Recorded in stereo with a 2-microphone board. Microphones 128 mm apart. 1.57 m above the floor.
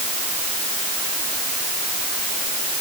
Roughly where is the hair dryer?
I don't hear a hair dryer.